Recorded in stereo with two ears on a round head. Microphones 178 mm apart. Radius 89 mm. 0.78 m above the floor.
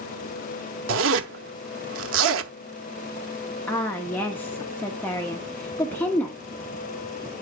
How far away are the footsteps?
I don't hear footsteps.